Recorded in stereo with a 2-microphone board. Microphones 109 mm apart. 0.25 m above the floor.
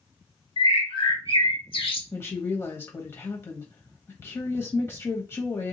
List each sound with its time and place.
0.6 s a bird: 55° left (ahead or behind), 0.8 m
2.1 s a woman speaking: 20° left (ahead or behind), 1.0 m